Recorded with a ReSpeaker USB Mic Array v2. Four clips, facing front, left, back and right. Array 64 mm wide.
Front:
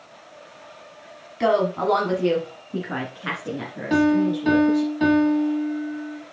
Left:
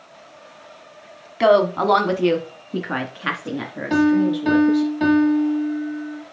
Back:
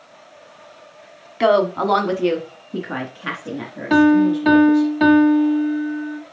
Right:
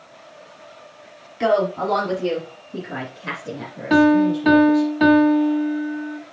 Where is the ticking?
I don't hear ticking.